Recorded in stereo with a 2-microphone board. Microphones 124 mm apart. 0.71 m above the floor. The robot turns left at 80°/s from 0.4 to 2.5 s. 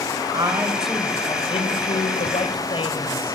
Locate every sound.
0.3 s a man speaking: 140° right, 2.5 m; by 3.4 s 50° left, 2.5 m